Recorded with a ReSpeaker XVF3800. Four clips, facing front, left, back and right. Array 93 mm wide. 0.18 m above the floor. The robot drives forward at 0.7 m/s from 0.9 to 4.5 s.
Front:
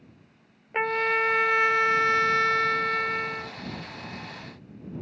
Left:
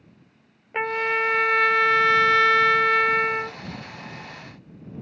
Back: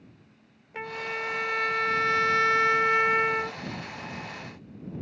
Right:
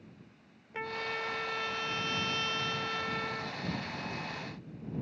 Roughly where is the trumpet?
Ahead left.